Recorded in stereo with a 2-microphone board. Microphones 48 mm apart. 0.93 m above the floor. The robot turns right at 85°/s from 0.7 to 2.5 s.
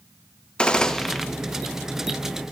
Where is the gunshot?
20° left (ahead or behind), 0.5 m; by 1.3 s 5° right (ahead or behind), 0.5 m.